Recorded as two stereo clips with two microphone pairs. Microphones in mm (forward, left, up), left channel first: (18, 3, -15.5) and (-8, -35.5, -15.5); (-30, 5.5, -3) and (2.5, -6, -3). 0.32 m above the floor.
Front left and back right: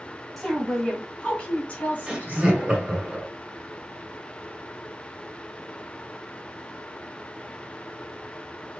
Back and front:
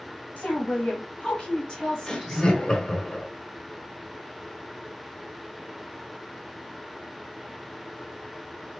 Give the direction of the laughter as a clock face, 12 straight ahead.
6 o'clock.